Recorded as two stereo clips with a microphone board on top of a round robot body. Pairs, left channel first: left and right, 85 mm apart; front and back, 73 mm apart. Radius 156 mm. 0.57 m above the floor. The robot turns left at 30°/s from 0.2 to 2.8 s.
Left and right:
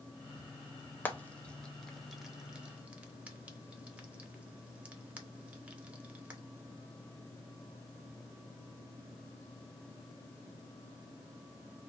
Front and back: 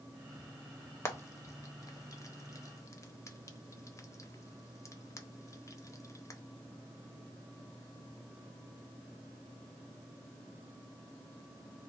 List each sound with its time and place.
1.1 s frying: 35° left, 0.9 m; by 6.4 s 20° right, 0.9 m